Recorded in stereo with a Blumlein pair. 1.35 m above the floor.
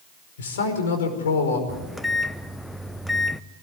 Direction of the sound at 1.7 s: 5° left.